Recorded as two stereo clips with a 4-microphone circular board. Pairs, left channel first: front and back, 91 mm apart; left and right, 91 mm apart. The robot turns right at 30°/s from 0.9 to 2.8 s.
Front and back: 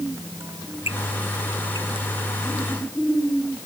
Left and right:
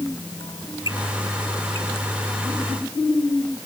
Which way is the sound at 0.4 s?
120° left.